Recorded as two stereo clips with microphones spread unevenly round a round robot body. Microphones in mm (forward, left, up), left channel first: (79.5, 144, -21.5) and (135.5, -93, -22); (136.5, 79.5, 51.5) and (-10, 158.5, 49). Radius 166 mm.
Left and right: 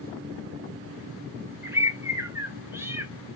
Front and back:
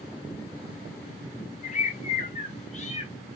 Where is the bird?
Straight ahead, 1.0 m.